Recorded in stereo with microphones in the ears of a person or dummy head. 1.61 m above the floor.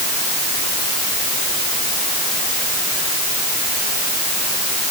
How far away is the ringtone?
I don't hear a ringtone.